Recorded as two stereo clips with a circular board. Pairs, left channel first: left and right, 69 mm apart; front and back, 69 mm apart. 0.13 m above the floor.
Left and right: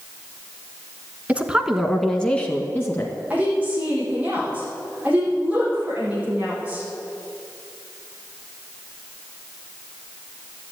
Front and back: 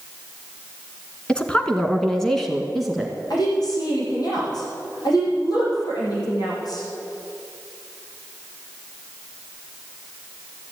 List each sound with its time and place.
1.3 s a woman speaking: 55° right, 1.2 m; by 3.2 s 90° left, 1.4 m
3.3 s a woman speaking: 20° right, 5 m